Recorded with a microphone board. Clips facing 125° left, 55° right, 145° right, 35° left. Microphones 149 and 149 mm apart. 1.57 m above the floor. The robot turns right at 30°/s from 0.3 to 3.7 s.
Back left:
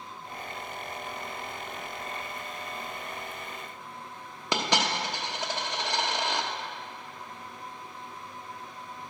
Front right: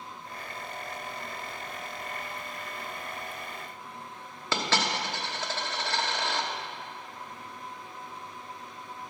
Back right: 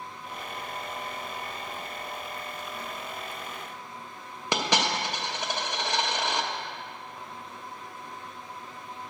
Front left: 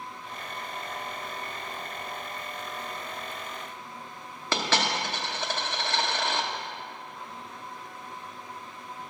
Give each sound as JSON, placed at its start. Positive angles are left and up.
{"t": 4.5, "sound": "a dropped coin", "azimuth_deg": 165, "distance_m": 0.8}